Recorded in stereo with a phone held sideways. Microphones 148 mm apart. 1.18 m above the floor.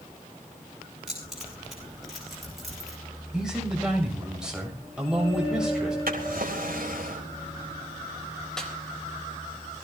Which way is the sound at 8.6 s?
5° left (ahead or behind).